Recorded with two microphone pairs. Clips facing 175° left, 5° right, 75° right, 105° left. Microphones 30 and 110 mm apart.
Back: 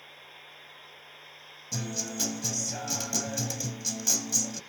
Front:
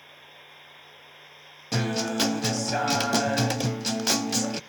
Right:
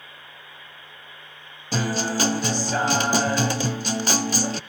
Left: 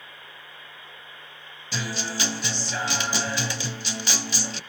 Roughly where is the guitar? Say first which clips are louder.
Front 8 dB, right 7 dB; ahead right.